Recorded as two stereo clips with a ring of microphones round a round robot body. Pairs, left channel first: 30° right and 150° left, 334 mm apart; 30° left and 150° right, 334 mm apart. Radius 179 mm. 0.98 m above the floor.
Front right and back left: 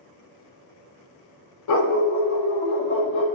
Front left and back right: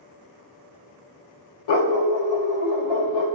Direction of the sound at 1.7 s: 15° left.